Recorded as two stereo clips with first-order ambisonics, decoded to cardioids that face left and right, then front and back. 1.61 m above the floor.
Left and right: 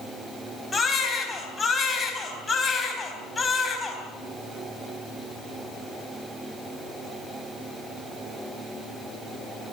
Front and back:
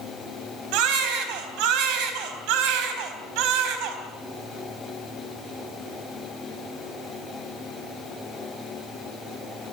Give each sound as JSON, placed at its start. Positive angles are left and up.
{"t": 0.7, "sound": "a baby crying", "azimuth_deg": 170, "distance_m": 4.0}